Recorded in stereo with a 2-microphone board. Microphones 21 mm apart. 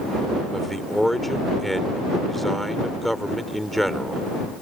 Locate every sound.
0.5 s a man speaking: 10° left (ahead or behind)